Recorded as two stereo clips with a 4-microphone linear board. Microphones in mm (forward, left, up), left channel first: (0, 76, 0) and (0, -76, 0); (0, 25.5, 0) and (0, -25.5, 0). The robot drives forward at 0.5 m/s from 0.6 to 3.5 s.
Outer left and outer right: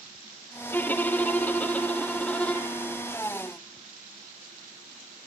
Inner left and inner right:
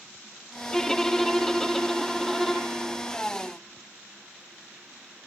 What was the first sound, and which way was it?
A violin, 10° left (ahead or behind).